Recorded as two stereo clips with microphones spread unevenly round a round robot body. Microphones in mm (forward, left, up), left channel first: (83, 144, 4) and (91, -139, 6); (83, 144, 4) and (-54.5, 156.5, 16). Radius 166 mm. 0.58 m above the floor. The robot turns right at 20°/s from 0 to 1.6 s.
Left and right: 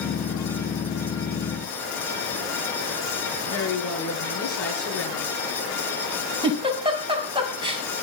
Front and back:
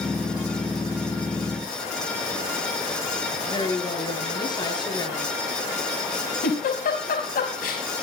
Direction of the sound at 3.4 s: 55° left.